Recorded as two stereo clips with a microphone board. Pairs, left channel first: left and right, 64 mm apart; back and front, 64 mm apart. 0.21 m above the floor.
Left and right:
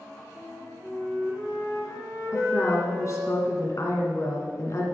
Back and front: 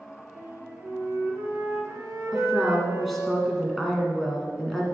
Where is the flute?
50° left, 3 m.